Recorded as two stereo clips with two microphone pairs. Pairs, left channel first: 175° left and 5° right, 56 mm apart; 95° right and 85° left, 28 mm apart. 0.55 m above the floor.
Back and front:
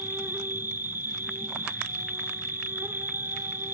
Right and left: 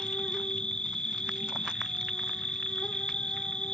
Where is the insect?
40° right, 0.8 m.